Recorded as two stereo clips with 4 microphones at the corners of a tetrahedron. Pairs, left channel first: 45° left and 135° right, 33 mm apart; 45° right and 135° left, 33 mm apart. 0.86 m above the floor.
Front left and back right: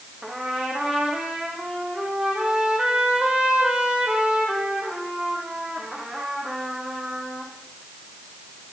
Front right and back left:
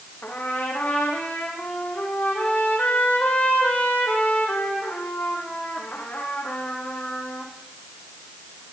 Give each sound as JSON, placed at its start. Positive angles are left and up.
{"t": 0.2, "sound": "a trumpet", "azimuth_deg": -75, "distance_m": 7.0}